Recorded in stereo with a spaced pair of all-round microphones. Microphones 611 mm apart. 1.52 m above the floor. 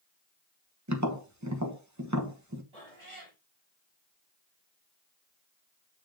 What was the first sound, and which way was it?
Tapping, 30° right (ahead or behind).